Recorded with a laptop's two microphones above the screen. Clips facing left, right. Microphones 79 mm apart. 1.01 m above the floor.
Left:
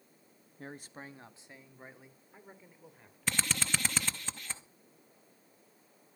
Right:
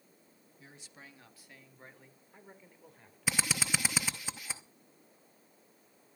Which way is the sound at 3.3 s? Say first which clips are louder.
Right 1 dB; 10° right (ahead or behind).